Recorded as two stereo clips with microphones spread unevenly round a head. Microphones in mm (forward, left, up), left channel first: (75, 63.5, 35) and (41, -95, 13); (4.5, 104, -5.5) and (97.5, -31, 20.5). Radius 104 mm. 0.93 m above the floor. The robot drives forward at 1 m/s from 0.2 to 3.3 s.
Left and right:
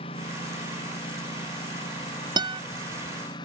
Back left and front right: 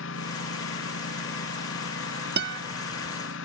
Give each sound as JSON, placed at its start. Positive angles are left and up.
{"t": 0.0, "sound": "a lawn mower", "azimuth_deg": 145}
{"t": 2.4, "sound": "a guitar", "azimuth_deg": -40}